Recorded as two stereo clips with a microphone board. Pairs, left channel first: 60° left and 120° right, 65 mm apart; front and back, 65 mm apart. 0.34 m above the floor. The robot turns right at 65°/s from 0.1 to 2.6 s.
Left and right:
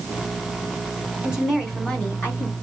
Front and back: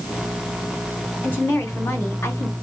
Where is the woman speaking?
55° right, 2 m; by 2.5 s 30° left, 2 m.